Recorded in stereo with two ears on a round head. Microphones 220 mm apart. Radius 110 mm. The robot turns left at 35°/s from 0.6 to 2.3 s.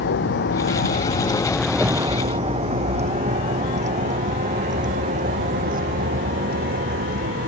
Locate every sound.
0.0 s a vehicle: 45° left (ahead or behind); by 7.5 s 35° right (ahead or behind)